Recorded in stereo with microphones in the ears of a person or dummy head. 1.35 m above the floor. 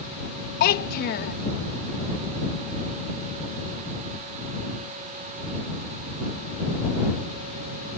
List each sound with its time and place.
0.6 s a child speaking: 55° left (ahead or behind)